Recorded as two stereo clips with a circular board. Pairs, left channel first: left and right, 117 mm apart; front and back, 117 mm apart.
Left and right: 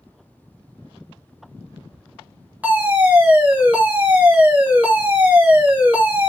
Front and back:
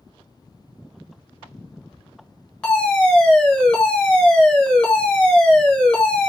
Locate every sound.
2.6 s a fire alarm: 60° right, 1.3 m